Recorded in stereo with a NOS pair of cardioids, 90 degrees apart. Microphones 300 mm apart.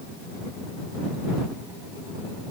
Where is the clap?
I don't hear a clap.